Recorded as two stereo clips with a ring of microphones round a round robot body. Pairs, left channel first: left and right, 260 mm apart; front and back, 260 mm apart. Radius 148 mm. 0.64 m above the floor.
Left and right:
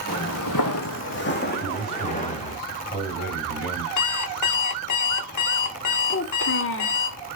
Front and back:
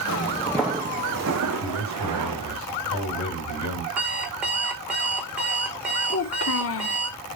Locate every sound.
0.1 s footsteps: 35° left, 1.1 m; by 2.6 s 155° left, 3 m
1.6 s a man speaking: straight ahead, 4 m
4.0 s an alarm clock: 95° left, 1.7 m
6.1 s a child speaking: 40° left, 0.9 m